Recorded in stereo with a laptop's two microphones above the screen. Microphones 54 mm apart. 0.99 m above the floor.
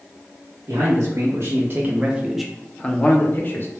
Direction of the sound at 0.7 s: 60° right (ahead or behind).